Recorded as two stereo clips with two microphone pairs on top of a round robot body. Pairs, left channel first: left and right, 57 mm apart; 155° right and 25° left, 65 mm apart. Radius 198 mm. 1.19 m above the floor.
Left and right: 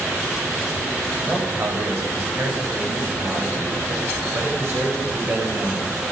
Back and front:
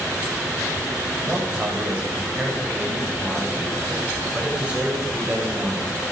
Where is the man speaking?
45° right, 9 m.